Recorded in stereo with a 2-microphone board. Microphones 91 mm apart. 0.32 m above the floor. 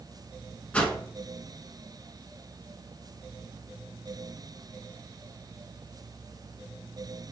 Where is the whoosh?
15° left (ahead or behind), 0.7 m.